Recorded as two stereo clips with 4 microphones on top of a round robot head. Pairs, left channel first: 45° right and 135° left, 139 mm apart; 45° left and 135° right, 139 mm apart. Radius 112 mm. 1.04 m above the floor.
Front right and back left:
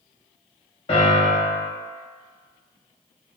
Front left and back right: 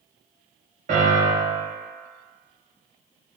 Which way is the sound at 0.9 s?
95° right.